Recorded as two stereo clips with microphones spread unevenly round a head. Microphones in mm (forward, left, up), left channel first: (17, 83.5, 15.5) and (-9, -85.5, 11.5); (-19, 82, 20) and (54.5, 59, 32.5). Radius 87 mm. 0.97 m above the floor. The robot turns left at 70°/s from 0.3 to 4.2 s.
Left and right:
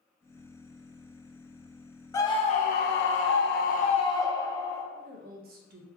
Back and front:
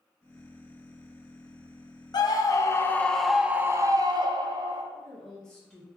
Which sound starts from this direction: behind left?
A scream, at 2.1 s.